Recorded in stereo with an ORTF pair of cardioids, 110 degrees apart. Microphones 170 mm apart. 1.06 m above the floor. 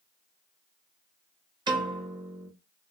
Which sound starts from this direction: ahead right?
A piano, at 1.7 s.